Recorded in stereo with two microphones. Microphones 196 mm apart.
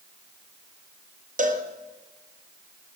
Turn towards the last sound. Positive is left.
turn(degrees=-40)  # may be behind; listen again after turning